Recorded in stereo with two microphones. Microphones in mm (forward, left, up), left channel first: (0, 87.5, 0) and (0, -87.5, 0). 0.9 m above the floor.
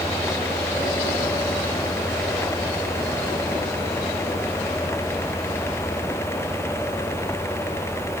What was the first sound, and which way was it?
Only background noise.